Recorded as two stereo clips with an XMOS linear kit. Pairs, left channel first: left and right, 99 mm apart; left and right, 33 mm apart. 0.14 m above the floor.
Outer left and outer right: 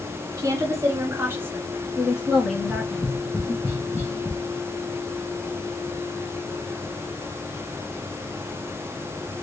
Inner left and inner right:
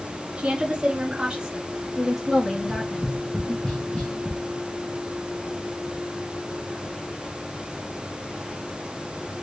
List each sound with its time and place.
0.4 s a woman speaking: 35° right (ahead or behind), 1.7 m; by 3.5 s 10° left (ahead or behind), 2 m
2.5 s tapping: 20° left (ahead or behind), 1.8 m